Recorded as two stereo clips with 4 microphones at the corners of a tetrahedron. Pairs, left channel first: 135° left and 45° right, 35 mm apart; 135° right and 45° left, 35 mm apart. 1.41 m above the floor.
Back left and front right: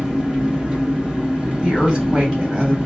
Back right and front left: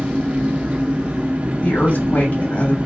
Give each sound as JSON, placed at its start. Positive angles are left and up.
{"t": 0.0, "sound": "an engine running", "azimuth_deg": 10, "distance_m": 1.2}
{"t": 1.6, "sound": "a woman speaking", "azimuth_deg": -110, "distance_m": 2.0}